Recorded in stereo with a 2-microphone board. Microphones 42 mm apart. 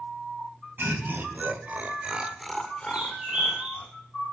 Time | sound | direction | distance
0.8 | laughter | 65° right (ahead or behind) | 3 m
2.9 | a bird | 25° right (ahead or behind) | 6.5 m